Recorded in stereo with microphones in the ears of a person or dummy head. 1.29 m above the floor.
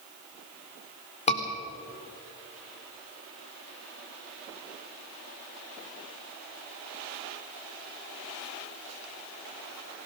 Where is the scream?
45° left (ahead or behind), 3 m.